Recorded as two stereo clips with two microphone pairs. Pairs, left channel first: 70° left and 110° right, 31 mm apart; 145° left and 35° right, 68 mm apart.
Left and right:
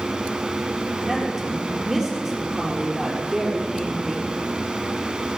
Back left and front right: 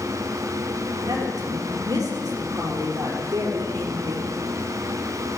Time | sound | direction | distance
1.0 | a woman speaking | 35° right | 5 m